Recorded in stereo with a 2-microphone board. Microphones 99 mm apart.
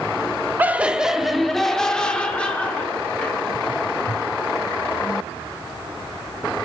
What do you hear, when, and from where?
0.6 s laughter: 20° right (ahead or behind), 0.7 m; by 3.4 s 15° left (ahead or behind), 1.9 m